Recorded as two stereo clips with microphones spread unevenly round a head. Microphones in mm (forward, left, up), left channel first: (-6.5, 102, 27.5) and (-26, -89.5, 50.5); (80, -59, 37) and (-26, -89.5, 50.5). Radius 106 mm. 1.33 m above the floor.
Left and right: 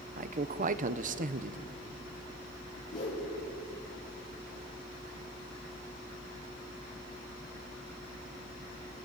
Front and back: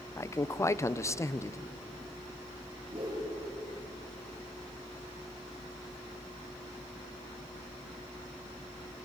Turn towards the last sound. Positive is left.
turn(degrees=140)